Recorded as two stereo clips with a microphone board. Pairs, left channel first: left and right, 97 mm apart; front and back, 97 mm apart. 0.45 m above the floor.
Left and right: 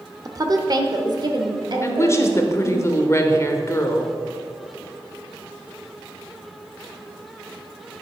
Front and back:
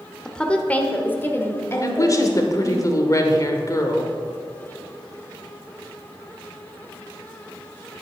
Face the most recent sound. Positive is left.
turn(degrees=40)